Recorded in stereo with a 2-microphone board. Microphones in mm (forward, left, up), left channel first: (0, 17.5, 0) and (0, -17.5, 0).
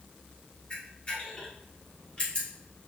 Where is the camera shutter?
30° left (ahead or behind), 2.5 m.